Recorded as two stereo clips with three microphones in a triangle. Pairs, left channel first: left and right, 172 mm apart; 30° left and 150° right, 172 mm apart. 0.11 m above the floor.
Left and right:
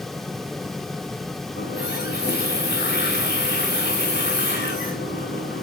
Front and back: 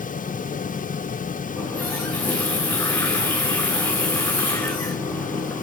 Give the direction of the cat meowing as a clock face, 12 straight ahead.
No cat meowing in this recording.